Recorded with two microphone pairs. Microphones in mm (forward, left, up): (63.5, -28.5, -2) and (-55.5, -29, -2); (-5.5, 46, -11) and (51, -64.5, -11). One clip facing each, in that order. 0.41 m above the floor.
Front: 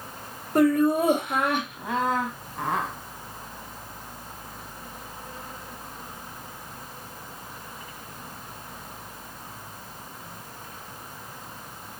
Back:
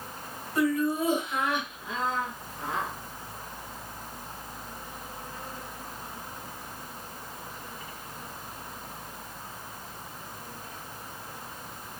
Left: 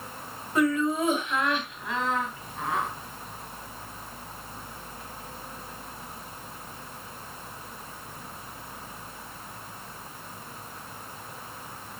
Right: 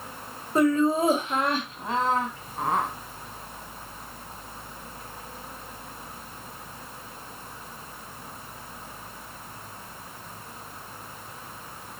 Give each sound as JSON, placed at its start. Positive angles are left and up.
{"t": 0.6, "sound": "laughter", "azimuth_deg": -15, "distance_m": 1.8}